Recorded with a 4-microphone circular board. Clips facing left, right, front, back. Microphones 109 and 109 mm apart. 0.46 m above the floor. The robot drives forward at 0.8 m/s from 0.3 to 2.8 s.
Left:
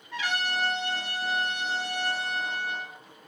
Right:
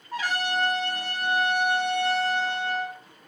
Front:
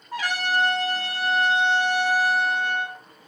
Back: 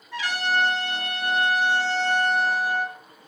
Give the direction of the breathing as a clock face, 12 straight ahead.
I don't hear breathing.